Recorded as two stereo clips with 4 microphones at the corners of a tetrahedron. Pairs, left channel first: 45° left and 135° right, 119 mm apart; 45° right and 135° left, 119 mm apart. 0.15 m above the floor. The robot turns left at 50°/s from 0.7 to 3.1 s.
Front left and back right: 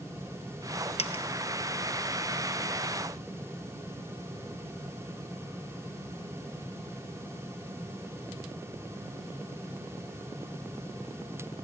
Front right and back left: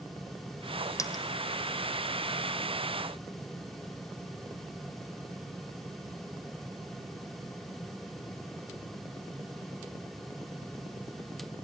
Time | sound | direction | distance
1.0 | a dropped coin | 20° left | 1.1 m